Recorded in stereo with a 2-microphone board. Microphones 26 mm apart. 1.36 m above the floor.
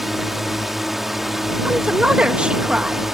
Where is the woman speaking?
45° right (ahead or behind).